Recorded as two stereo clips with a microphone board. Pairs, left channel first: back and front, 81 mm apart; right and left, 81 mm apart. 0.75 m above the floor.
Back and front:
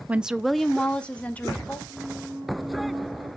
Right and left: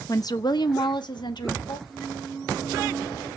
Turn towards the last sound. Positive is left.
turn(degrees=-35)